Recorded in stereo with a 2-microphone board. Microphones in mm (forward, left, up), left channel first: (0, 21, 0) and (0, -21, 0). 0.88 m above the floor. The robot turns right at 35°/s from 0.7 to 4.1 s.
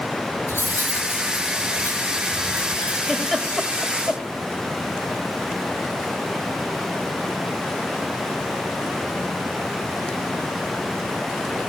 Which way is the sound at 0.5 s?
70° left (ahead or behind).